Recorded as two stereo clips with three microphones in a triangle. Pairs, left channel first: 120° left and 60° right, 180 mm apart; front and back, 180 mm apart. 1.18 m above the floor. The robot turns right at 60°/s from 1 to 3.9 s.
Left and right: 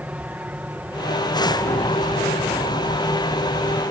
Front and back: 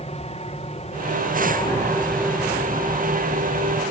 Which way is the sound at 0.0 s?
20° left.